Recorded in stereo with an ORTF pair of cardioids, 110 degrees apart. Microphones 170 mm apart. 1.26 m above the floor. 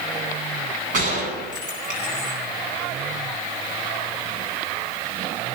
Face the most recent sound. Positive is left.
turn(degrees=-50)